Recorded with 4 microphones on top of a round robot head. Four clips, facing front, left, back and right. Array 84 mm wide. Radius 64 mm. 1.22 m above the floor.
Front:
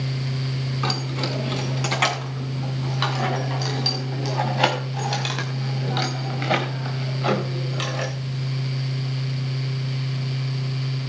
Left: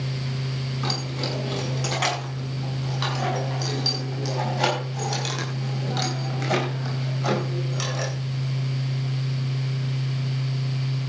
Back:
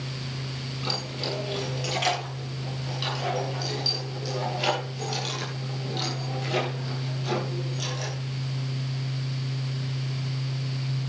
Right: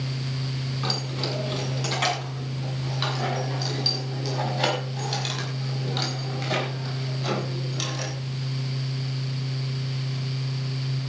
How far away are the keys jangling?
About 8 m.